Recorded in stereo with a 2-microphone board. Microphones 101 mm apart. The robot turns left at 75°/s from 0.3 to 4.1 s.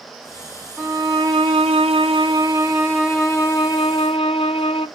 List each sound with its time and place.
0.8 s a violin: straight ahead, 2 m; by 4.9 s 110° left, 2 m